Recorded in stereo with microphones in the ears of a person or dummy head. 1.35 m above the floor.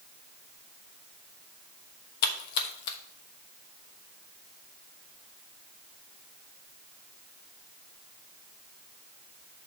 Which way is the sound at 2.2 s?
60° left (ahead or behind).